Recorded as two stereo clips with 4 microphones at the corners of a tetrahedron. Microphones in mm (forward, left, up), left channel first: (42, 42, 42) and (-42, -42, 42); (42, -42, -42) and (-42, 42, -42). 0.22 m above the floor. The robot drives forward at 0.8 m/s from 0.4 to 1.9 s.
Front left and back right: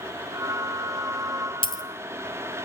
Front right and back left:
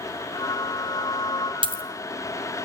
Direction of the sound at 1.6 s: 90° left.